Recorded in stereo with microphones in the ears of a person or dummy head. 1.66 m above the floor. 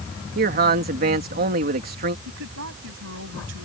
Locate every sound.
0.3 s a man speaking: 45° right (ahead or behind)
2.2 s a woman speaking: 70° right (ahead or behind)